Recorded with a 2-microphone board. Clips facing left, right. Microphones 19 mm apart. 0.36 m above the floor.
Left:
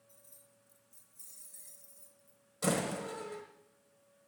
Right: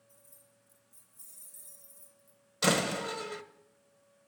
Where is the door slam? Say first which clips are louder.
Right 5 dB; 50° right (ahead or behind), 1.0 m.